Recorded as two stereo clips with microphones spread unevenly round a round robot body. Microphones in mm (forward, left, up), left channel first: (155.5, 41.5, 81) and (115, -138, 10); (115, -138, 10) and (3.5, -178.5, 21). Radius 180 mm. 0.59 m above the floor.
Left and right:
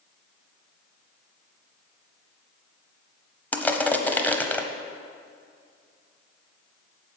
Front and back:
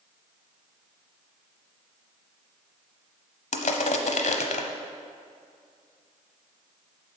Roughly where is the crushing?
Ahead.